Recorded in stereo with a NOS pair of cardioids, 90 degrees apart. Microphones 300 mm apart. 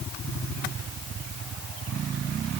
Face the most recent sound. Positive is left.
No sound to turn to.